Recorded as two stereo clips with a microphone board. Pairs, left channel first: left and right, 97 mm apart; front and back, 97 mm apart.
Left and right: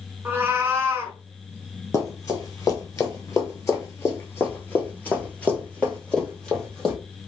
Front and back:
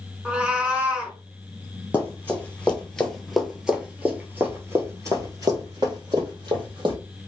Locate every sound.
0.2 s a cat meowing: 115° right, 1.4 m
1.9 s running footsteps: 60° left, 1.9 m; by 7.0 s 175° left, 2.5 m